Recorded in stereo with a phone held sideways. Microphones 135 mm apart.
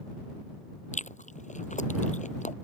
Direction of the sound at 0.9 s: 65° left (ahead or behind).